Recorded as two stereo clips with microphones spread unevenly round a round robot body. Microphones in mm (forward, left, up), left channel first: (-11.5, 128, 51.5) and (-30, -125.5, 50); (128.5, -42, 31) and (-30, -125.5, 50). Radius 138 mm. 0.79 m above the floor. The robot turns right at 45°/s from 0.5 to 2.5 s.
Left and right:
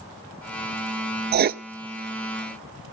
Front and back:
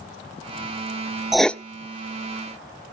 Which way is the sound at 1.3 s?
60° right.